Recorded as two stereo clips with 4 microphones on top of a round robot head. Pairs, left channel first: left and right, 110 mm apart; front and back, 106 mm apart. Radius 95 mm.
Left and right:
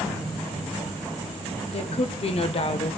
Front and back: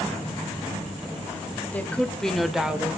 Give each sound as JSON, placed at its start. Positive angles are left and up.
{"t": 1.7, "sound": "a woman speaking", "azimuth_deg": 70, "distance_m": 2.5}